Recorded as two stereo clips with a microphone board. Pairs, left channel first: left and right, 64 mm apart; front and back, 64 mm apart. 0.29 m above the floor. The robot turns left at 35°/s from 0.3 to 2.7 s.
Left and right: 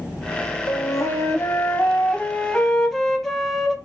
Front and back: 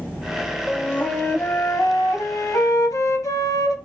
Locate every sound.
0.7 s a flute: 75° left, 0.8 m; by 3.8 s 5° left, 0.8 m